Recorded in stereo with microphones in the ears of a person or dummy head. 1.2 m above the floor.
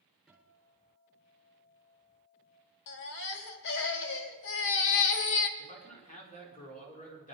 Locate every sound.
0.3 s a guitar: centre (ahead or behind), 4.5 m
2.9 s a baby crying: 60° left (ahead or behind), 1.5 m
5.6 s a man speaking: 40° left (ahead or behind), 4 m